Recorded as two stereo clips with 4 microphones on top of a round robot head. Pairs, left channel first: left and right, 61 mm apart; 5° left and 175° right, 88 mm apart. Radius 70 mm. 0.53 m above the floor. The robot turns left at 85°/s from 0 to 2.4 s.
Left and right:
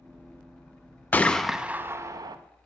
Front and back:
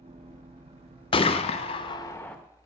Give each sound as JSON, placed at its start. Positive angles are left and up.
{"t": 1.1, "sound": "a gunshot", "azimuth_deg": 30, "distance_m": 0.6}